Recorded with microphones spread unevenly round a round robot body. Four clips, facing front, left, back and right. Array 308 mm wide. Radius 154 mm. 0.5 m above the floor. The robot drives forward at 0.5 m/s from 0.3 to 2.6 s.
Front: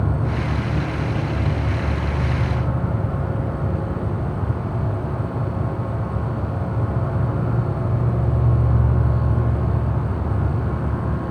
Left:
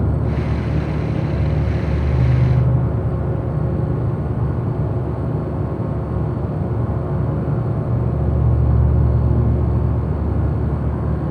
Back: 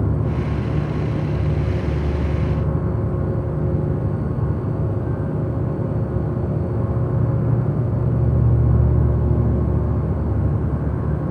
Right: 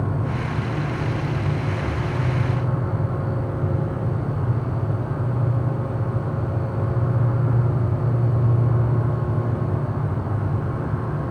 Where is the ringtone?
I don't hear a ringtone.